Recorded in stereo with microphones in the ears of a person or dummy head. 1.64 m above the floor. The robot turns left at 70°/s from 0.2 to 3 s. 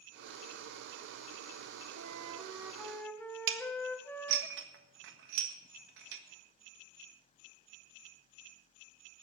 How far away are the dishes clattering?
About 1.4 m.